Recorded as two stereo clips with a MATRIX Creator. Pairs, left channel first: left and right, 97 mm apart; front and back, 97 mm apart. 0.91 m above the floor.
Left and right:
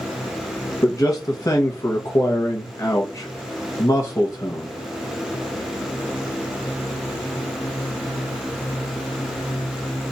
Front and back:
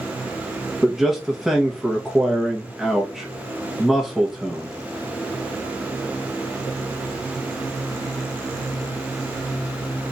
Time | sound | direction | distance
0.8 | a man speaking | 100° left | 1.0 m